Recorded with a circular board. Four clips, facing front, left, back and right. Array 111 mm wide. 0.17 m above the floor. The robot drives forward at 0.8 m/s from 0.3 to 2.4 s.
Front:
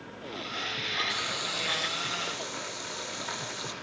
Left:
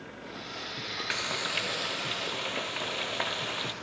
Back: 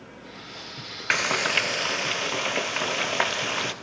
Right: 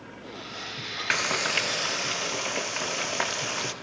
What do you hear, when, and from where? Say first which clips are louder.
1.1 s frying: right 7 dB, back 9 dB; 150° right, 1.7 m; by 3.7 s 165° right, 2.5 m